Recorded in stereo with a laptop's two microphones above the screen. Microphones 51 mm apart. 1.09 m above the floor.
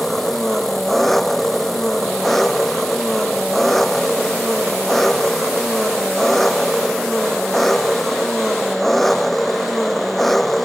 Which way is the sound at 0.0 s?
5° left (ahead or behind).